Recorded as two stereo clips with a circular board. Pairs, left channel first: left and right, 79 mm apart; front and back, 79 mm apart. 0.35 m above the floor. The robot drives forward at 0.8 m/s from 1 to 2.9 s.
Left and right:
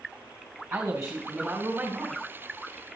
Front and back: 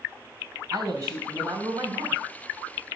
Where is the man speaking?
145° right, 3 m; by 2.2 s 155° right, 3.5 m.